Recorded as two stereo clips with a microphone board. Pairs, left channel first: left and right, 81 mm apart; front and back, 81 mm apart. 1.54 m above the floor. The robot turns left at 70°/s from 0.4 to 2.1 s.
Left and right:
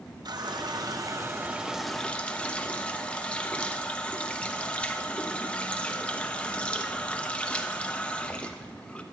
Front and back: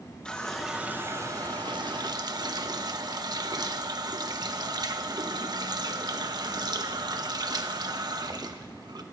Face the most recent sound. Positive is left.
turn(degrees=165)